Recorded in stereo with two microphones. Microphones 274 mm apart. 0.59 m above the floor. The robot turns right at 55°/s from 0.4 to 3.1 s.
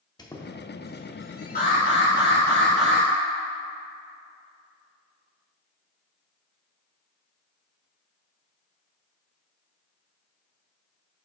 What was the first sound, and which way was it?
A squeak, 15° left (ahead or behind).